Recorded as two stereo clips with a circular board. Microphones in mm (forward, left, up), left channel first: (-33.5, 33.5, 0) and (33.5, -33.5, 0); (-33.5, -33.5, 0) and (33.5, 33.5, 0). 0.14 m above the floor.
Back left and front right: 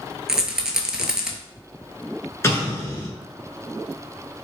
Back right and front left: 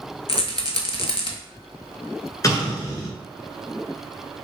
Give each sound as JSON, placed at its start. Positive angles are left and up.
{"t": 0.3, "sound": "a rattle", "azimuth_deg": -130, "distance_m": 0.5}
{"t": 2.4, "sound": "an explosion", "azimuth_deg": -175, "distance_m": 1.1}